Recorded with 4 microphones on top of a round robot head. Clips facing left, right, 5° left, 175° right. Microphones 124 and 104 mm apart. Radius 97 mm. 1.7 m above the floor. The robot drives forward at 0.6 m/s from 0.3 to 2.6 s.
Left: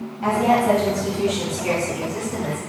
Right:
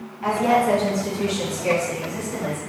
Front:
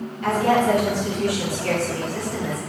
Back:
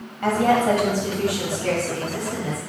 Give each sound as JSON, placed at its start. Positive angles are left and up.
{"t": 0.2, "sound": "a woman speaking", "azimuth_deg": 155, "distance_m": 1.6}